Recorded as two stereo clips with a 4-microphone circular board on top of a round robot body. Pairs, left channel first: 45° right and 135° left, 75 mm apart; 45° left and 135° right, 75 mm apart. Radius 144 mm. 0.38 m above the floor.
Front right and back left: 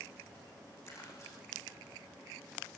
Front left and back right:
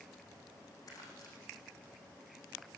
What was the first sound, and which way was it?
Crumpling, 5° left.